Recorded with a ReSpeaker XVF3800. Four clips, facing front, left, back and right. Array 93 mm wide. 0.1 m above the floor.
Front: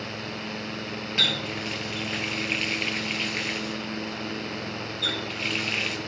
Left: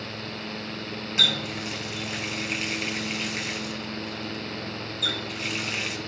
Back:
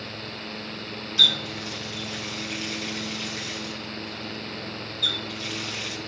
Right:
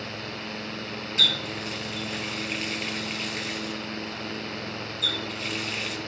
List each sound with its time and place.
1.2 s a running tap: 15° left, 1.5 m